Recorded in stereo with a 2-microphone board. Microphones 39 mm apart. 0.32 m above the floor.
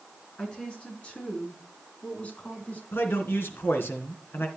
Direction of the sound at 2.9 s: 70° left (ahead or behind).